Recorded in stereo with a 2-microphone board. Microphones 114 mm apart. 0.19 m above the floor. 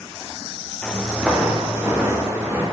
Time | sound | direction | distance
0.8 | footsteps | 10° left (ahead or behind) | 1.0 m